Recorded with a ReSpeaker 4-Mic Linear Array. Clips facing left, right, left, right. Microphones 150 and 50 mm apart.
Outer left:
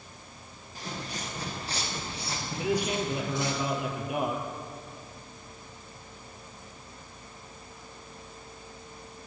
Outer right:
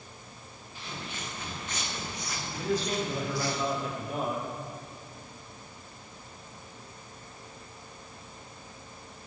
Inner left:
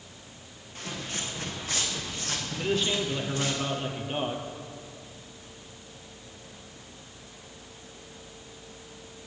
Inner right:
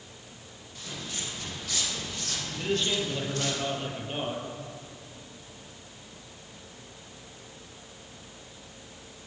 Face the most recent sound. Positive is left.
turn(degrees=15)  # may be behind; listen again after turning